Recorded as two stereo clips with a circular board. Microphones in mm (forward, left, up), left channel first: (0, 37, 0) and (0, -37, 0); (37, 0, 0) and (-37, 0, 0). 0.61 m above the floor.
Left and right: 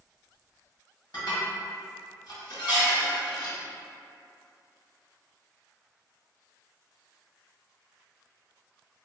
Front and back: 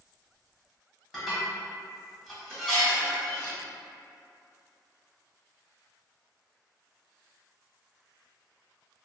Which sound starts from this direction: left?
Dishes clattering, at 1.1 s.